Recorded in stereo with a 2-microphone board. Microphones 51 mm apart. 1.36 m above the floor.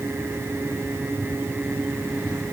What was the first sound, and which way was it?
Only background noise.